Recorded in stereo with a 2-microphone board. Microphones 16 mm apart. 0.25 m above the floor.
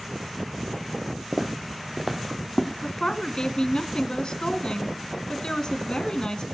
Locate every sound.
1.3 s footsteps: 50° right (ahead or behind), 1.5 m; by 2.7 s 10° left (ahead or behind), 1.9 m
2.8 s a woman speaking: 60° left (ahead or behind), 2.5 m